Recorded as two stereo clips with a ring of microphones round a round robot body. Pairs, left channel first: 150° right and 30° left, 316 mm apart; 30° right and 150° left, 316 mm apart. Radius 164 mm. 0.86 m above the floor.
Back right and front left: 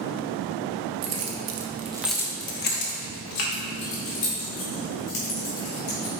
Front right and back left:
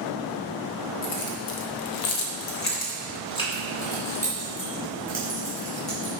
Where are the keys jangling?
15° left, 1.2 m; by 6.1 s 120° right, 5 m.